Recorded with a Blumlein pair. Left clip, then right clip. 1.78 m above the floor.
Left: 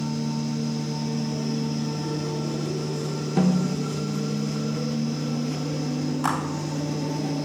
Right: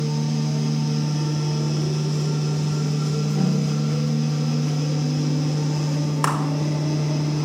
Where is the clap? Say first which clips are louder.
Right 2 dB; 60° right, 6 m.